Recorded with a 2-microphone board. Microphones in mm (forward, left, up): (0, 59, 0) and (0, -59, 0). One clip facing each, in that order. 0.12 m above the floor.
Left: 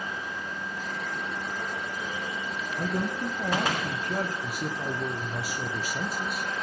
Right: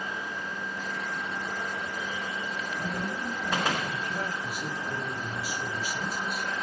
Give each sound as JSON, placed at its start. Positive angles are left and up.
{"t": 2.8, "sound": "a man speaking", "side_deg": 55, "distance_m": 4.0}